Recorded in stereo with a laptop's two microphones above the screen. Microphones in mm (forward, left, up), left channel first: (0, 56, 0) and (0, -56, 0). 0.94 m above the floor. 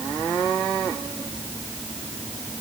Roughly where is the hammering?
No hammering in this recording.